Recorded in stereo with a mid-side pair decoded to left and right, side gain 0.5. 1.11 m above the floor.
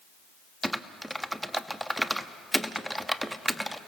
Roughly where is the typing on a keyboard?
Ahead.